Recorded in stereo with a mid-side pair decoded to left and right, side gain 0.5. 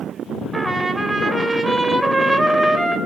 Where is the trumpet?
15° right, 3 m.